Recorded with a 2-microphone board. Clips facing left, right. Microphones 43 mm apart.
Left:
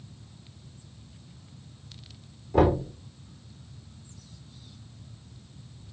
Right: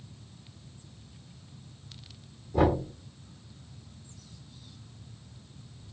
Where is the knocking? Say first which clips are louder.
Left 3 dB; 75° left (ahead or behind), 4.5 m.